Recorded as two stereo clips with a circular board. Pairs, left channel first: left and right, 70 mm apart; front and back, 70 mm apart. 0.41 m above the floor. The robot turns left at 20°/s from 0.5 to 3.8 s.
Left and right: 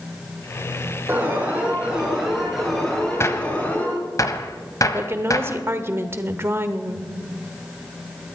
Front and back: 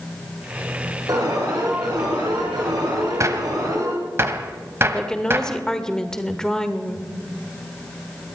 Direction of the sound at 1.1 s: 150° right.